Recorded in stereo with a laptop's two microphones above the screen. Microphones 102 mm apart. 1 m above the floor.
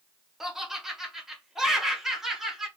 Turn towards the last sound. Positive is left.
turn(degrees=-5)  # may be behind; listen again after turning